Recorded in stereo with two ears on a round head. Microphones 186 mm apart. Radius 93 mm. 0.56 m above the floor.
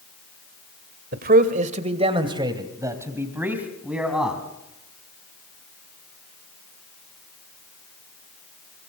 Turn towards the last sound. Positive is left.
turn(degrees=0)  # may be behind; listen again after turning